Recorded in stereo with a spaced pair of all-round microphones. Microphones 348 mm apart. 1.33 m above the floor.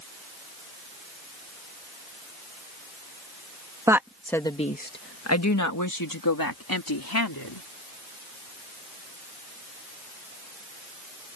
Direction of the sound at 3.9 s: 10° right (ahead or behind).